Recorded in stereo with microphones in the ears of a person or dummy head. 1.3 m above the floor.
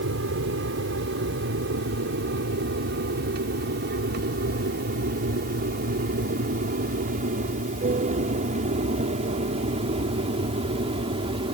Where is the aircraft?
65° right (ahead or behind); by 11.6 s 30° right (ahead or behind).